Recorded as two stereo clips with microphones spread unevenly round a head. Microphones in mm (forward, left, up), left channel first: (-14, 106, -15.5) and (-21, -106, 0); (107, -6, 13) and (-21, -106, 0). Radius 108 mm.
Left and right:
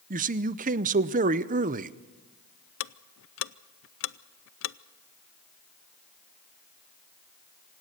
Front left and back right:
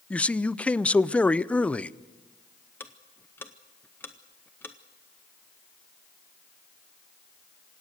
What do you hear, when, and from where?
0.1 s a man speaking: 40° right, 0.6 m
2.8 s ticking: 115° left, 0.5 m